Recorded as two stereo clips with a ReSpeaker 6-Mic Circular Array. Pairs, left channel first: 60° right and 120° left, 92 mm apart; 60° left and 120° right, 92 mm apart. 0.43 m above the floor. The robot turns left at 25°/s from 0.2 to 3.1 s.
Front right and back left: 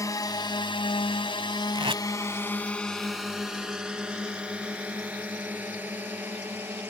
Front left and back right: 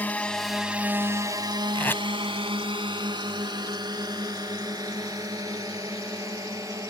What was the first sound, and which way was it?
A drone, 10° right.